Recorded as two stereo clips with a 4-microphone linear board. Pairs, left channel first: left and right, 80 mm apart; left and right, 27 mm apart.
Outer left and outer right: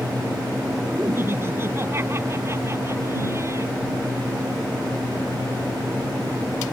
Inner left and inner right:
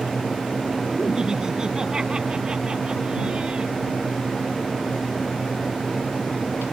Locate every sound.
1.0 s laughter: 30° right (ahead or behind); by 3.7 s 35° right (ahead or behind)